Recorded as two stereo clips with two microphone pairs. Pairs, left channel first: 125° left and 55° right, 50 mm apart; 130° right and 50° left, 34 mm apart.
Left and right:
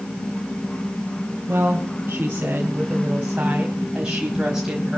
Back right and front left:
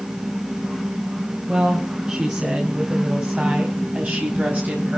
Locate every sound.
1.5 s a woman speaking: 5° right, 4 m; by 5.0 s 25° left, 3.5 m